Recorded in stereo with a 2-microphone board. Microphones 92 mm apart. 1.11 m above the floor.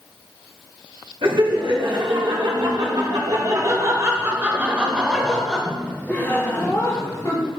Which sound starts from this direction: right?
Laughter, at 1.2 s.